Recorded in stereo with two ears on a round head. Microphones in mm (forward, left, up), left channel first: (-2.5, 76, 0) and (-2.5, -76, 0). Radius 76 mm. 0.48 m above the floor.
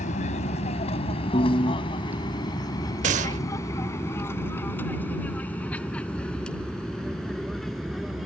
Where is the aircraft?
45° left (ahead or behind); by 8.3 s centre (ahead or behind).